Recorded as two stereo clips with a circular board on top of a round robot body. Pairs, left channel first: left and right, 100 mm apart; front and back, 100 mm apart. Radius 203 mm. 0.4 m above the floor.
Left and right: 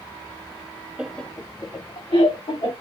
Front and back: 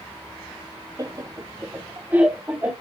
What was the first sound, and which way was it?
Laughter, 165° right.